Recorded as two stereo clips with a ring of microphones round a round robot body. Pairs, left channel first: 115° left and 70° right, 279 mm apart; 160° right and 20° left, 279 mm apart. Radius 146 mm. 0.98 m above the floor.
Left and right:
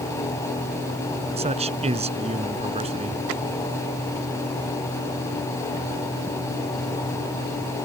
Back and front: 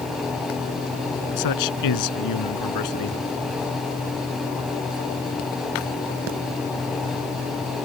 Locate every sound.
1.4 s a man speaking: 135° right